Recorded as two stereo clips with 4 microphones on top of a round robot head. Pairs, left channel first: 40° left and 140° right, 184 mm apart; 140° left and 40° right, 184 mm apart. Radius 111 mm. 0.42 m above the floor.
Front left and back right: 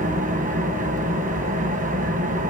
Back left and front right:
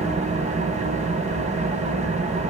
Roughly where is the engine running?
Right.